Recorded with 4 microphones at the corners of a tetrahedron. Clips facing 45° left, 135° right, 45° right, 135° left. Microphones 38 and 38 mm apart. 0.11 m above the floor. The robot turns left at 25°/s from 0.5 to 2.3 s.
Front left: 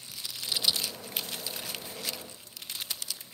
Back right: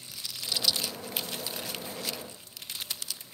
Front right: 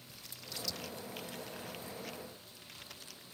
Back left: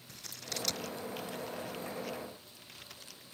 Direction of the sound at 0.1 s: 115° left.